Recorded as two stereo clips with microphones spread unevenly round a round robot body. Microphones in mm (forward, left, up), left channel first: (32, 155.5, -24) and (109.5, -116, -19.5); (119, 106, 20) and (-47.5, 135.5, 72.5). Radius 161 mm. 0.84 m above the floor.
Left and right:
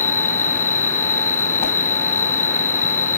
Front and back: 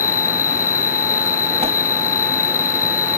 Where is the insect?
65° left.